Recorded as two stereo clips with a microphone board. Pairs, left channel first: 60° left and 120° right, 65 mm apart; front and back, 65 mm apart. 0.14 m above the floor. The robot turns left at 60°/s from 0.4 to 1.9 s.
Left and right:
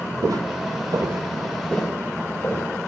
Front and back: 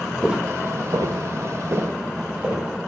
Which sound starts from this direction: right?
Footsteps, at 0.2 s.